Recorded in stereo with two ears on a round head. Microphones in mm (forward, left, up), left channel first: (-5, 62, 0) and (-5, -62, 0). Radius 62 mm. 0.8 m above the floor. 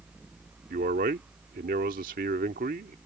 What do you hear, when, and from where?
0.7 s a man speaking: 65° right (ahead or behind)